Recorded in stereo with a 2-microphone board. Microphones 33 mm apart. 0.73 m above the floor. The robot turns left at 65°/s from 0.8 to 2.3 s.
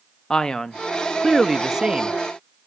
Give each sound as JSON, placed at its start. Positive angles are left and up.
{"t": 0.3, "sound": "a man speaking", "azimuth_deg": 40, "distance_m": 0.6}